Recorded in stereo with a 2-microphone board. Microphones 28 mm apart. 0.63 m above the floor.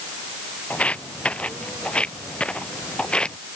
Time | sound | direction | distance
0.7 | footsteps | 45° left (ahead or behind) | ?